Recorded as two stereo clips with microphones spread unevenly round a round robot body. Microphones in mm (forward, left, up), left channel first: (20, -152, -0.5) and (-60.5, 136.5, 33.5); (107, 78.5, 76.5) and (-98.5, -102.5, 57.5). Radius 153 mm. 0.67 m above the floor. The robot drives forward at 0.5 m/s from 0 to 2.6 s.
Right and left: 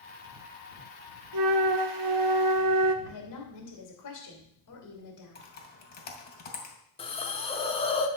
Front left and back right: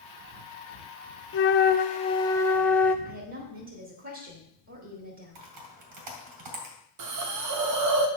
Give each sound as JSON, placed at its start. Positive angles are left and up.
{"t": 1.3, "sound": "a flute", "azimuth_deg": 80, "distance_m": 0.8}
{"t": 3.0, "sound": "a woman speaking", "azimuth_deg": -100, "distance_m": 2.5}
{"t": 5.3, "sound": "typing on a keyboard", "azimuth_deg": -135, "distance_m": 2.5}
{"t": 7.0, "sound": "a hiss", "azimuth_deg": -145, "distance_m": 1.1}